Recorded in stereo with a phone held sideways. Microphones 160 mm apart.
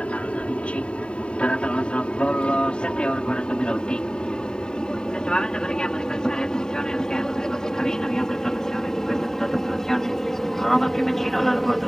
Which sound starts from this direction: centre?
An aircraft, at 0.0 s.